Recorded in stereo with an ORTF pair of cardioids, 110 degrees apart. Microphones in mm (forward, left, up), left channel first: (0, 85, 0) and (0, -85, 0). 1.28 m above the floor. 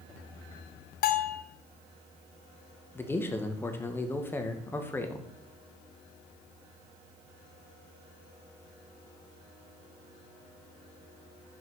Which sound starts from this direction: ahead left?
A bell, at 1.0 s.